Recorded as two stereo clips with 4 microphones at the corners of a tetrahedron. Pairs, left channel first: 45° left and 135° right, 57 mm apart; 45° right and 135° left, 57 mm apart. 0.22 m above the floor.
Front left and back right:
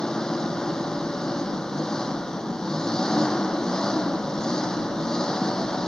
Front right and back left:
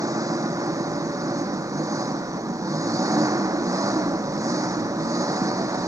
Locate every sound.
0.0 s an engine running: 125° left